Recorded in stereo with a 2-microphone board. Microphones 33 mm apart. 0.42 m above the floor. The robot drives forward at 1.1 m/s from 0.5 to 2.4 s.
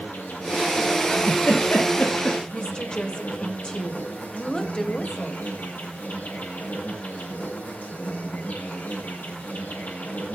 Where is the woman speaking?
25° left (ahead or behind), 2.5 m.